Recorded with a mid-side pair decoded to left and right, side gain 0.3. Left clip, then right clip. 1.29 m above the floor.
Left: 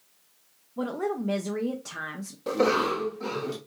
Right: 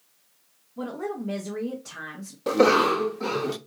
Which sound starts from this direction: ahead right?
A cough, at 2.5 s.